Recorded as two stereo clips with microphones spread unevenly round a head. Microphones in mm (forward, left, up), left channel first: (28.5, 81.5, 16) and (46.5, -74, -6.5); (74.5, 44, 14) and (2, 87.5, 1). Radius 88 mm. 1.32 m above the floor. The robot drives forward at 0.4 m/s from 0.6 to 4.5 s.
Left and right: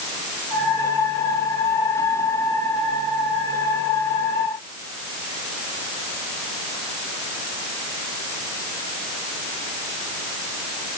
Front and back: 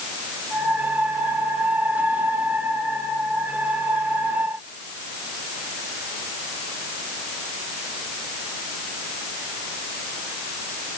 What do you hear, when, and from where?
Only background noise.